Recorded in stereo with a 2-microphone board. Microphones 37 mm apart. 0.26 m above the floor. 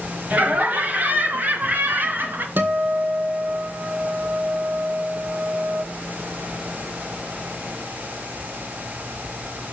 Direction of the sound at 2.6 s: 70° right (ahead or behind).